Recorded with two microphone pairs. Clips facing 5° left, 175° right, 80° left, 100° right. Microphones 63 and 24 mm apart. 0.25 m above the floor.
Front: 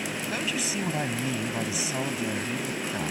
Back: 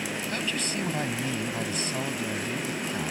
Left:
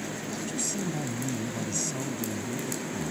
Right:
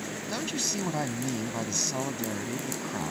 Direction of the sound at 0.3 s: 80° right.